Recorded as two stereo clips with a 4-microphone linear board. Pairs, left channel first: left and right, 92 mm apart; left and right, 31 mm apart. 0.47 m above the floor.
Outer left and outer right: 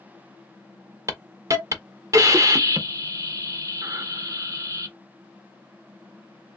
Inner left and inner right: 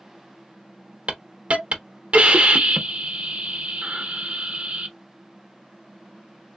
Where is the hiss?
35° right (ahead or behind), 0.7 m.